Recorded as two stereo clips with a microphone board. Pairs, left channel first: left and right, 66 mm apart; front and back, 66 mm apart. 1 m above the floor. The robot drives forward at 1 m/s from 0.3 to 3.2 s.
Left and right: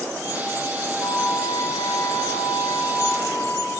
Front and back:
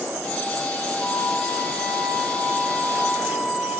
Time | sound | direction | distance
1.0 | a flute | 80° left | 4.5 m